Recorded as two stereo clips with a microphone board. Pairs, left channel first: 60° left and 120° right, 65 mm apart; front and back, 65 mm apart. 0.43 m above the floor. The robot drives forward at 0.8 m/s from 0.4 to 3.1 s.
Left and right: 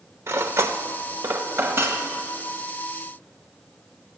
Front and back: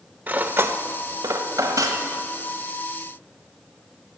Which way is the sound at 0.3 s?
130° right.